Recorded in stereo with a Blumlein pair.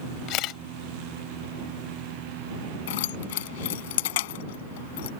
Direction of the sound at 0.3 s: 35° left.